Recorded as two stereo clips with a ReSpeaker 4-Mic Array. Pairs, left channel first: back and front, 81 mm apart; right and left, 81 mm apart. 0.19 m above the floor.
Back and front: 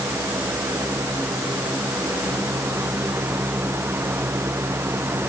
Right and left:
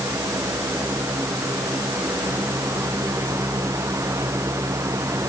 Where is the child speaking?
I don't hear a child speaking.